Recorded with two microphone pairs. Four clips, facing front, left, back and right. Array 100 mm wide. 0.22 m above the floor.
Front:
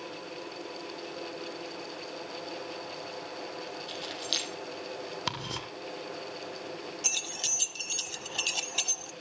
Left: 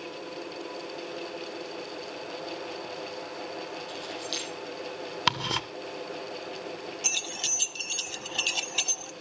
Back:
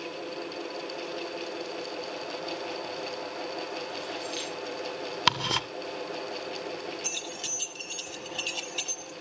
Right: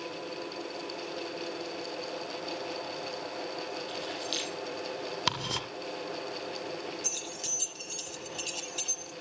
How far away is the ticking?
About 1.4 m.